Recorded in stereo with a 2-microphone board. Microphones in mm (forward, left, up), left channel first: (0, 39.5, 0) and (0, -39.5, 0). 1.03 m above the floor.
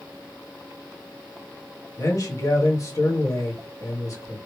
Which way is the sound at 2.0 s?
45° left (ahead or behind).